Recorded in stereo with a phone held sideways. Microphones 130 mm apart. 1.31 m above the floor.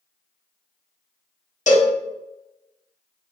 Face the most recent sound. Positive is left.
turn(degrees=70)  # may be behind; listen again after turning